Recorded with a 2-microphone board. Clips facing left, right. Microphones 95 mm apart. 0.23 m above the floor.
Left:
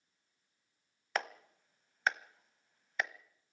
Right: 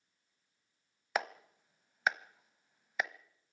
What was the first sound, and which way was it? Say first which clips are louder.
A clap: right 2 dB; 10° right (ahead or behind).